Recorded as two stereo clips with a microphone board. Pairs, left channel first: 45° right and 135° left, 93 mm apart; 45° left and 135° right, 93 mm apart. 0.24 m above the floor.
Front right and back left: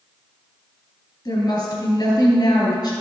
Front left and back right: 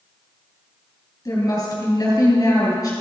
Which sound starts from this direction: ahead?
A woman speaking, at 1.2 s.